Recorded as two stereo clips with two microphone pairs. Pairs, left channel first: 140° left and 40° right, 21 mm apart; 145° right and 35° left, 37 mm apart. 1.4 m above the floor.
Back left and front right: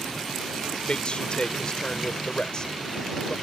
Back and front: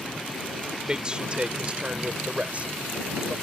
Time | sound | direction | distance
0.9 | a man speaking | 100° left | ?